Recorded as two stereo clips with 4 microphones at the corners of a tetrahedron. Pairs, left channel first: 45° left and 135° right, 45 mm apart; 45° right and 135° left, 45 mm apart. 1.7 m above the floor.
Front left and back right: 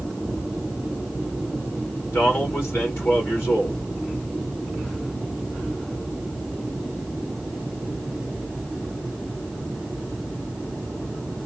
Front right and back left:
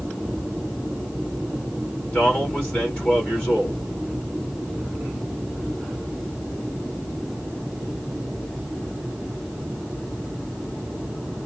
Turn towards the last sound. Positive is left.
turn(degrees=15)